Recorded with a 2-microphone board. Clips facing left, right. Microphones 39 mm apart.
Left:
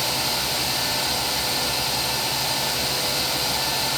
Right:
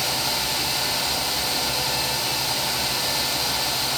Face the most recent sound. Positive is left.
No sound to turn to.